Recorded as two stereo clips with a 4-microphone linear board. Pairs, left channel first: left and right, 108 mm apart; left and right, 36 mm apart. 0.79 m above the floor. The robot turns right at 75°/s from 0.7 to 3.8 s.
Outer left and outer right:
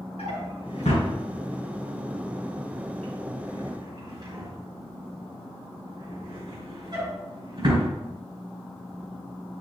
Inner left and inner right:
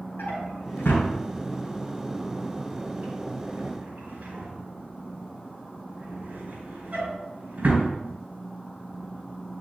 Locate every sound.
0.2 s a drawer: 80° left, 4 m; by 7.9 s 45° right (ahead or behind), 4 m